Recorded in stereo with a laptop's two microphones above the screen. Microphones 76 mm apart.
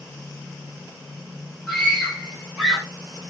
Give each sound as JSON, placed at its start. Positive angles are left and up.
{"t": 1.7, "sound": "a scream", "side_deg": 5, "distance_m": 3.5}